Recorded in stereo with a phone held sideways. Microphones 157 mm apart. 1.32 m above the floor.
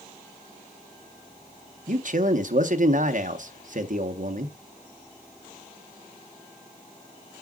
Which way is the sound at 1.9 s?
55° right (ahead or behind).